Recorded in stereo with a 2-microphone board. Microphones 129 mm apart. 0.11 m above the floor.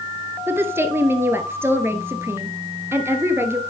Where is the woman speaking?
20° right (ahead or behind), 1.5 m.